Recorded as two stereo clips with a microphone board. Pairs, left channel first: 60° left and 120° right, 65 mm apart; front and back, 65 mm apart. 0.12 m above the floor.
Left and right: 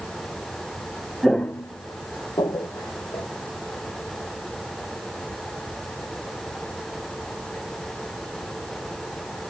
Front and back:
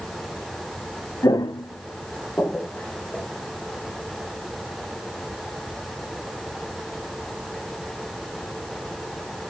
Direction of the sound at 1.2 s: 30° right.